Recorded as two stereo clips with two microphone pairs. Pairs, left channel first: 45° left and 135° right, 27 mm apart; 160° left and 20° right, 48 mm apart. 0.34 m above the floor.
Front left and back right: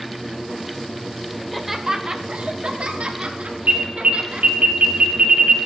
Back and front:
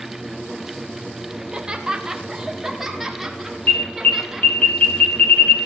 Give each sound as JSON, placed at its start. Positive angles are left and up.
{"t": 1.4, "sound": "laughter", "azimuth_deg": 0, "distance_m": 0.9}
{"t": 3.7, "sound": "an alarm", "azimuth_deg": -155, "distance_m": 1.2}